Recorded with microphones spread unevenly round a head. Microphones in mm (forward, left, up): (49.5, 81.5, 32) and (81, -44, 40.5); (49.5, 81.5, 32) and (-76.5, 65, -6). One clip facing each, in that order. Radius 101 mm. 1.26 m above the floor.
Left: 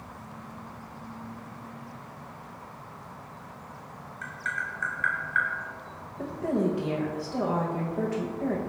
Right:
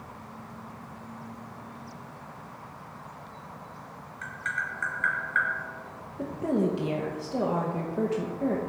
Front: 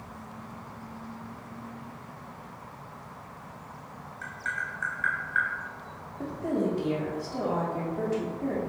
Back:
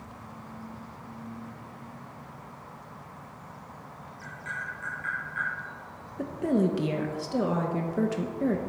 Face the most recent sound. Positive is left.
turn(degrees=-150)